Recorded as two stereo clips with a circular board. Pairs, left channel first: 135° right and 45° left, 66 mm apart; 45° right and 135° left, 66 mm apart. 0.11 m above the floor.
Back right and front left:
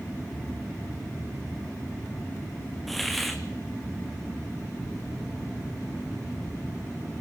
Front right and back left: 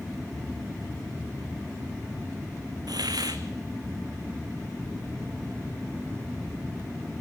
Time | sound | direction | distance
2.9 | a hiss | 135° left | 1.3 m